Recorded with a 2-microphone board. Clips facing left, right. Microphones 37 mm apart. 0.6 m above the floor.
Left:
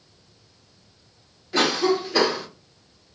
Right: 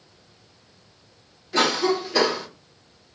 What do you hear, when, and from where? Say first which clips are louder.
1.5 s a cough: even; 10° left (ahead or behind), 1.3 m